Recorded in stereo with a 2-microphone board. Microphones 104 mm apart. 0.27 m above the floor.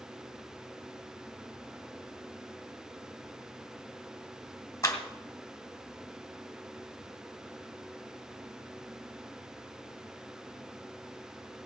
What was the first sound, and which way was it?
A clap, 30° left (ahead or behind).